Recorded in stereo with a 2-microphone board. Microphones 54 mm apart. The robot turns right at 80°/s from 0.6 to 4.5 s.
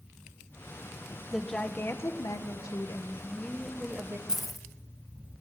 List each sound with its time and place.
1.3 s a woman speaking: straight ahead, 1.4 m; by 4.2 s 130° right, 1.4 m
4.3 s keys jangling: 10° right (ahead or behind), 1.5 m; by 4.7 s 5° left (ahead or behind), 1.5 m